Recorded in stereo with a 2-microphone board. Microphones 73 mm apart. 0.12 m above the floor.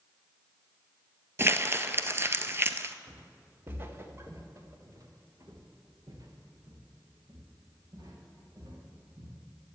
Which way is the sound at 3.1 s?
20° right (ahead or behind).